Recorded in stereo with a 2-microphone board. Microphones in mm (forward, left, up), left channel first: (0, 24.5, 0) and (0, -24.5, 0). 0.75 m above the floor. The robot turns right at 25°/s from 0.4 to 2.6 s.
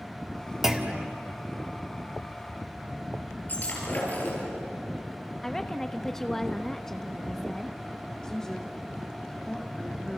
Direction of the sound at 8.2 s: 10° left (ahead or behind).